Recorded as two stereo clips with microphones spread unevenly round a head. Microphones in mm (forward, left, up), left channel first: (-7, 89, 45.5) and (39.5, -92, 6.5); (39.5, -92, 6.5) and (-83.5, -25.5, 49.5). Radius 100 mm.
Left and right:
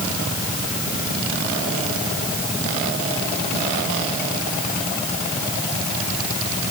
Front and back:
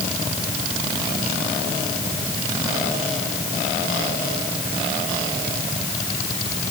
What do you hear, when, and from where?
Only background noise.